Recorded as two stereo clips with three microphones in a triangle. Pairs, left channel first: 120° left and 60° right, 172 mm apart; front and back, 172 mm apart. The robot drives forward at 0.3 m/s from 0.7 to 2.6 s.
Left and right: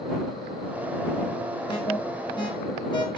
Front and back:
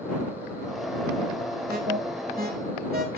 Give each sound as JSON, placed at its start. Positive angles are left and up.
{"t": 1.7, "sound": "an alarm", "azimuth_deg": 175, "distance_m": 4.5}